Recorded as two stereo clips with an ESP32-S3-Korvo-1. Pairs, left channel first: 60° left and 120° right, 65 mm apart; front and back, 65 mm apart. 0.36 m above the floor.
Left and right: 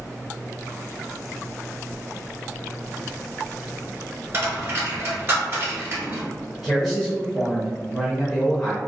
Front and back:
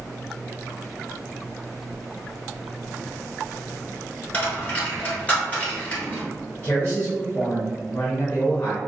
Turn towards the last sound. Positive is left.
turn(degrees=-25)